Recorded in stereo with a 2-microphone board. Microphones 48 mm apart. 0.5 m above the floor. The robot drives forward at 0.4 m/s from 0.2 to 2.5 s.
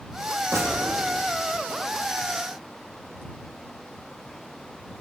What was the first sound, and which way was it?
A gunshot, 80° right.